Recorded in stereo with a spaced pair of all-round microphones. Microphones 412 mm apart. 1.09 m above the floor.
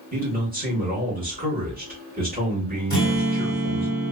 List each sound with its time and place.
0.1 s a man speaking: 20° right (ahead or behind), 1.4 m
2.9 s a guitar: 45° right (ahead or behind), 1.8 m